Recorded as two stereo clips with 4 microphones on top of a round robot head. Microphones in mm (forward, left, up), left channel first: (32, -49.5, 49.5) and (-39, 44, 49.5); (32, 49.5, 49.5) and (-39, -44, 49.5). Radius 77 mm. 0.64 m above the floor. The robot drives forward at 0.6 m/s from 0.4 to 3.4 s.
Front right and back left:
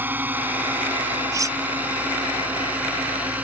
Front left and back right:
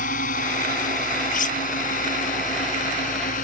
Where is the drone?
50° left.